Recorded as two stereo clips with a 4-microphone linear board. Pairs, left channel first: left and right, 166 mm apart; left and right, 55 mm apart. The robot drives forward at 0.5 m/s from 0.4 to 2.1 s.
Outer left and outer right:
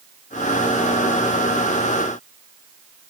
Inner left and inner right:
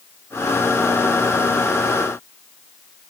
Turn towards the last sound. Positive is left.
No sound to turn to.